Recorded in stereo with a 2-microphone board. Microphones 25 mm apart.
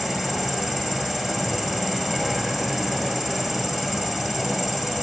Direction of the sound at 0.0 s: Centre (ahead or behind).